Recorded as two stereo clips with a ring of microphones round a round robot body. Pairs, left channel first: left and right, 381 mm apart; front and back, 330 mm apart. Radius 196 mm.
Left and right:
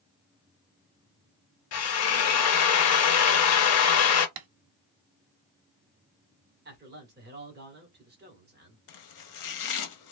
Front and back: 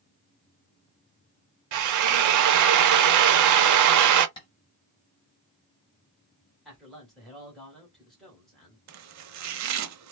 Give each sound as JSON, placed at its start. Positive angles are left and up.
{"t": 1.7, "sound": "a drill", "azimuth_deg": 145, "distance_m": 0.5}
{"t": 4.4, "sound": "tapping", "azimuth_deg": -80, "distance_m": 0.6}
{"t": 6.7, "sound": "a man speaking", "azimuth_deg": -90, "distance_m": 1.2}
{"t": 8.9, "sound": "chopping", "azimuth_deg": 135, "distance_m": 0.5}